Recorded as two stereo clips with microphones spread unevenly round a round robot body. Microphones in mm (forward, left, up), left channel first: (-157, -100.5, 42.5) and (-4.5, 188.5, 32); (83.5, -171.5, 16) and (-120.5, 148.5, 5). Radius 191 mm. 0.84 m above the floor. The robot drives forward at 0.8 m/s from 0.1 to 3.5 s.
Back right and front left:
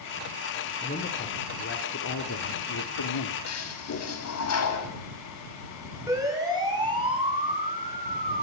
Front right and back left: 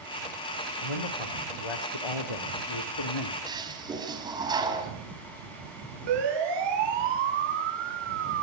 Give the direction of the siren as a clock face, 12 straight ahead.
7 o'clock.